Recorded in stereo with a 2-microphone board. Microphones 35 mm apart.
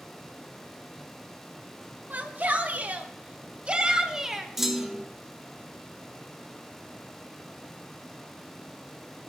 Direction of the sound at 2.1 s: 60° right (ahead or behind).